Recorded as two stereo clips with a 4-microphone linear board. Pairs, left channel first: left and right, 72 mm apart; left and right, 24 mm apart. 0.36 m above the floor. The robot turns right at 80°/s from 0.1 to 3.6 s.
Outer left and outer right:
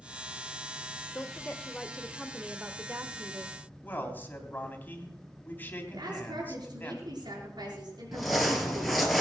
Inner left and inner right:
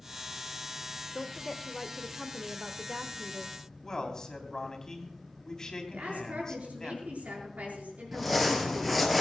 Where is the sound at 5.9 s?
75° right (ahead or behind), 6 m.